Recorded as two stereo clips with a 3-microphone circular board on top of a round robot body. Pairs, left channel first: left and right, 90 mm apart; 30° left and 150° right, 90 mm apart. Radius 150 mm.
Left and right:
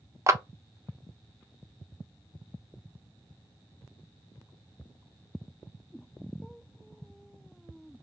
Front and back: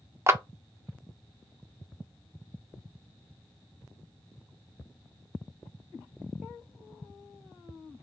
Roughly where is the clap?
Behind right.